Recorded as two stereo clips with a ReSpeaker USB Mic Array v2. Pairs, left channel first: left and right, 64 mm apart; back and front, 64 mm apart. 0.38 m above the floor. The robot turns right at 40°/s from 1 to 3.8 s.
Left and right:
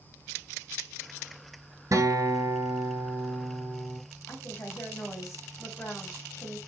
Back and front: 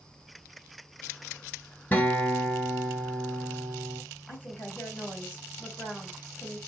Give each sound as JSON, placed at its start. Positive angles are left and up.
{"t": 1.9, "sound": "a guitar", "azimuth_deg": -120, "distance_m": 1.1}
{"t": 4.3, "sound": "a woman speaking", "azimuth_deg": 130, "distance_m": 2.5}